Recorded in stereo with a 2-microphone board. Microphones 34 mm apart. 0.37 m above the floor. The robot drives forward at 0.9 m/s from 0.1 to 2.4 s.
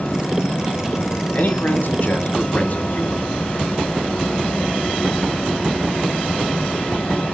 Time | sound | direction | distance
1.3 | a man speaking | 55° left (ahead or behind) | 3 m